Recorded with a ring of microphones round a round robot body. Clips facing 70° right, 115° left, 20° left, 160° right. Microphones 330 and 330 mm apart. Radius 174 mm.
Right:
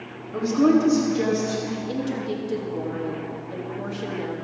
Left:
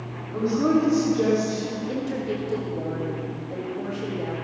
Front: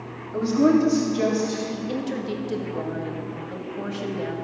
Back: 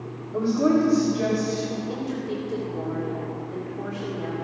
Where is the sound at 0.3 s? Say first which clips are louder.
Right 3 dB, front 2 dB; 30° right, 1.9 m; by 1.6 s 5° left, 2 m.